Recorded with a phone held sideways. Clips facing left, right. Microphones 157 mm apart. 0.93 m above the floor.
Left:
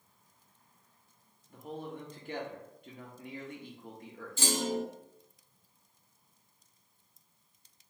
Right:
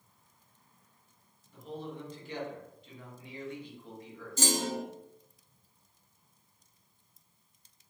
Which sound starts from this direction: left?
A man speaking, at 1.5 s.